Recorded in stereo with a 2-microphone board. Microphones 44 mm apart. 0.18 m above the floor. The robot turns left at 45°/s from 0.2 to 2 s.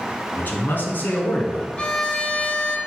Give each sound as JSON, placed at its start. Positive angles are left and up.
{"t": 0.4, "sound": "a man speaking", "azimuth_deg": 120, "distance_m": 1.7}
{"t": 1.8, "sound": "a violin", "side_deg": 25, "distance_m": 0.8}